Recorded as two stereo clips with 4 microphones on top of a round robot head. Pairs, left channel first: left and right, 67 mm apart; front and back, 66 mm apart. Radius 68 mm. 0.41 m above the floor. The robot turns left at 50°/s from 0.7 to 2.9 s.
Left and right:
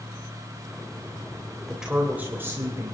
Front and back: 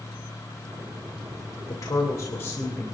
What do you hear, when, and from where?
1.7 s a woman speaking: 5° right, 2.5 m; by 2.9 s 65° right, 2.5 m